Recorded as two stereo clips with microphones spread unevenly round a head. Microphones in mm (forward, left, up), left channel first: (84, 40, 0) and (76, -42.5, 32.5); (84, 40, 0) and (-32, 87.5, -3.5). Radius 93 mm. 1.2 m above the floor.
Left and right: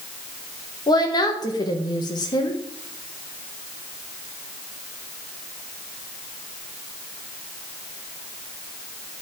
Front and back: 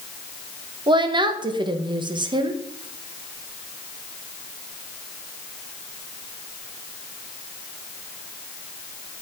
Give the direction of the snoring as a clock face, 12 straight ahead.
No snoring in this recording.